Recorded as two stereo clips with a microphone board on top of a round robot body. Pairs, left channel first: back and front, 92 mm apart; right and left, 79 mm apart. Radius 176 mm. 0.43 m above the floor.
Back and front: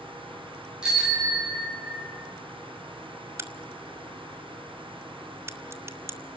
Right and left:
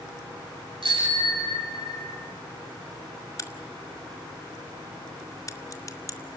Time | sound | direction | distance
0.8 | a bicycle bell | 80° left | 7.5 m
3.4 | a crack | 55° right | 2 m